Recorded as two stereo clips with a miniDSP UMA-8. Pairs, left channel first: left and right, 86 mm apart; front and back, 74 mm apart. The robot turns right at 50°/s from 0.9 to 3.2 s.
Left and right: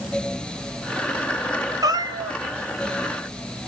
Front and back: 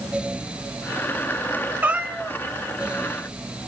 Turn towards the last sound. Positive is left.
turn(degrees=-50)